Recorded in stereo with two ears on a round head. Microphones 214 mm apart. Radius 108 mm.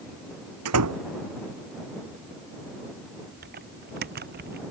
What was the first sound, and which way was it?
A door slam, 75° right (ahead or behind).